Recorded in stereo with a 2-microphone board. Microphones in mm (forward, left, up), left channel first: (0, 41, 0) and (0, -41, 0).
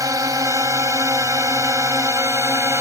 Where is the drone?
50° right (ahead or behind); by 2.8 s 40° right (ahead or behind).